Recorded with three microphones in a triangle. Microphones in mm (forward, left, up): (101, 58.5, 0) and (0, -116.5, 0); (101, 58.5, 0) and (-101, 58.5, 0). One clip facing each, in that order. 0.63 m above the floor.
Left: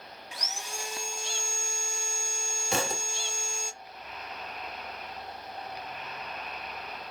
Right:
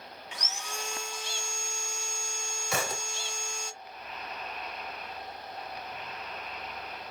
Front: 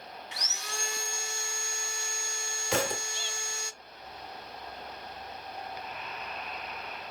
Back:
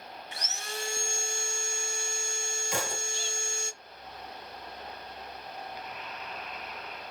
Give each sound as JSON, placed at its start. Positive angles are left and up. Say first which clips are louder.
{"t": 0.3, "sound": "sawing", "louder": "even, back 5 dB", "azimuth_deg": 140, "distance_m": 1.4}
{"t": 2.7, "sound": "a thud", "louder": "left 2 dB, front 6 dB", "azimuth_deg": -5, "distance_m": 1.3}